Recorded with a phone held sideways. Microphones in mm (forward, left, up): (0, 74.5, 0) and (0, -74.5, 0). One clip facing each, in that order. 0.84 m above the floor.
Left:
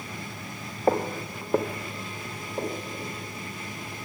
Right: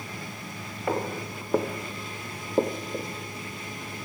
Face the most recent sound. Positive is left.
turn(degrees=-60)  # may be behind; listen again after turning